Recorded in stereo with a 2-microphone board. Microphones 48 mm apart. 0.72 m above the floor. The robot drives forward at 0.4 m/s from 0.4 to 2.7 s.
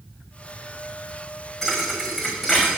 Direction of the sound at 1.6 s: 5° right (ahead or behind).